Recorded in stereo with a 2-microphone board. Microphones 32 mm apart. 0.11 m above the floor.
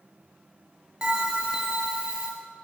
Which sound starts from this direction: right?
A bell, at 1.0 s.